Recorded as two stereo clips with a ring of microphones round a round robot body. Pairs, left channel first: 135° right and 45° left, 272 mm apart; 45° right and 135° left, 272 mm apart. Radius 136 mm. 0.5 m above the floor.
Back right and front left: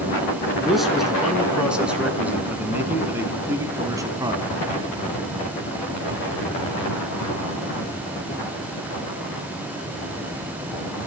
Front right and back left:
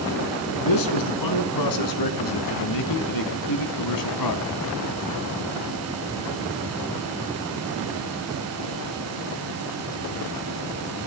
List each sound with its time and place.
0.6 s a man speaking: 45° right, 5.5 m; by 4.5 s 30° right, 4 m